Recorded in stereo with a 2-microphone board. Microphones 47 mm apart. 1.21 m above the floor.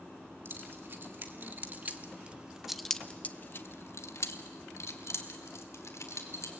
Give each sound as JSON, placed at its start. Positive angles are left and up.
{"t": 0.5, "sound": "keys jangling", "side_deg": -50, "distance_m": 2.5}